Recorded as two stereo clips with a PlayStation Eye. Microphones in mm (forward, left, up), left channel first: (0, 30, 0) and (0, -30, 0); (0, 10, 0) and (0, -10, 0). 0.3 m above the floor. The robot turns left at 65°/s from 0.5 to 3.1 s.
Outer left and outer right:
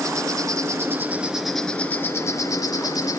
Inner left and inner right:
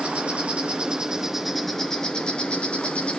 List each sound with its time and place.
0.0 s an insect: 115° right, 2 m; by 3.2 s 75° left, 2 m